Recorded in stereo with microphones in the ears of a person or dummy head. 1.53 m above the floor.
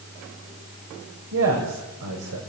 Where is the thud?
I don't hear a thud.